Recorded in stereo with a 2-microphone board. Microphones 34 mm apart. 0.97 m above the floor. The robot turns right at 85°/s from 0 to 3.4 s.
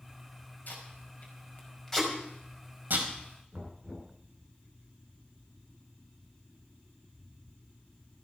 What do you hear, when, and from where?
0.7 s tape being pulled: 60° left (ahead or behind), 5 m; by 3.1 s 80° right, 5 m
3.5 s knocking: 35° right (ahead or behind), 7 m